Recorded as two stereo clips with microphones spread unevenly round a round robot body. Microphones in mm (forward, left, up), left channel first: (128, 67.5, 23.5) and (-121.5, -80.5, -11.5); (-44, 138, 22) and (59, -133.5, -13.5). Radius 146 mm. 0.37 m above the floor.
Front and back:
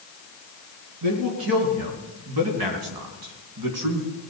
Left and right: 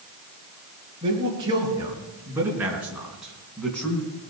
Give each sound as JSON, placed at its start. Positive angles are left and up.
{"t": 1.0, "sound": "a man speaking", "azimuth_deg": -145, "distance_m": 4.0}